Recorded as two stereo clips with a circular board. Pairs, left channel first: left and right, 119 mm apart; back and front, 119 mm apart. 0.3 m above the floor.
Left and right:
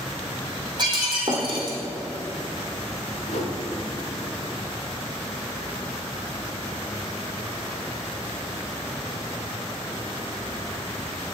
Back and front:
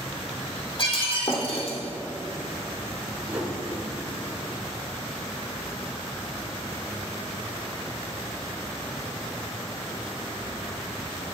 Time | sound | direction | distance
0.8 | breaking glass | 140° right | 2.5 m
3.3 | a whoosh | 80° left | 1.8 m